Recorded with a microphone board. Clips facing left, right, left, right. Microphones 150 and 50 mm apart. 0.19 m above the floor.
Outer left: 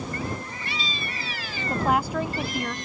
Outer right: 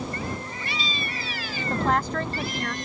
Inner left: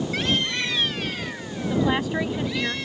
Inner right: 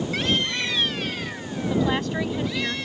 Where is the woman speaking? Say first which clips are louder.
Outer left 1 dB, inner left 1 dB; 10° left (ahead or behind).